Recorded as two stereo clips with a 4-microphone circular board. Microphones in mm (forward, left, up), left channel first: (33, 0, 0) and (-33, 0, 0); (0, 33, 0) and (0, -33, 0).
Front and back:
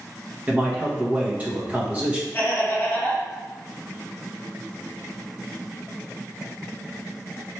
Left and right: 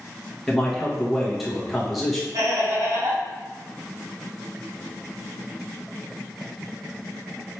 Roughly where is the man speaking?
Behind.